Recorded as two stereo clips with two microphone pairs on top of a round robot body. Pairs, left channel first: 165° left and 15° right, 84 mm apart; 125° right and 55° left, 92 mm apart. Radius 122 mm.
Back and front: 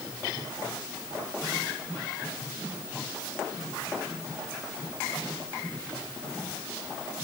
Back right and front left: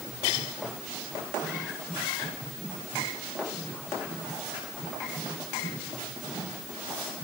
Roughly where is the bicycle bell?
No bicycle bell in this recording.